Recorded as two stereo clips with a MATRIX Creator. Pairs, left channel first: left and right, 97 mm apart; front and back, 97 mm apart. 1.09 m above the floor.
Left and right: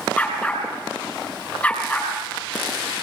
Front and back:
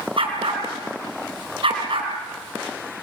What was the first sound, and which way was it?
A dog barking, 170° left.